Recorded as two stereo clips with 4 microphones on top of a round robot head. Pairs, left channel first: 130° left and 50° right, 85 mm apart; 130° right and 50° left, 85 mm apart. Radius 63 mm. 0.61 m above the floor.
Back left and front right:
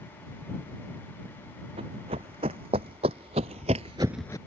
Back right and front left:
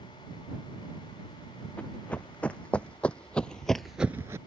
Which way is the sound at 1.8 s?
55° right.